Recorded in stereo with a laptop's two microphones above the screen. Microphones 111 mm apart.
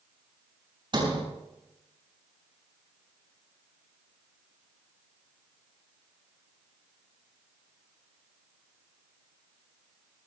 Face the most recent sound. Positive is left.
turn(degrees=-45)  # may be behind; listen again after turning